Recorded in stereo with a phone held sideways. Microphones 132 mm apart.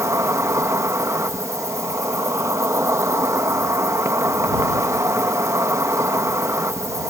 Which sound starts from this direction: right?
An insect, at 0.0 s.